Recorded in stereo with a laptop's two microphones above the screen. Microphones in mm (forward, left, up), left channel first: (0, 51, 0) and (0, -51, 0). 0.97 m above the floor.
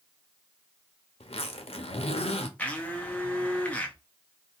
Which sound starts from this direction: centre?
A blender, at 2.6 s.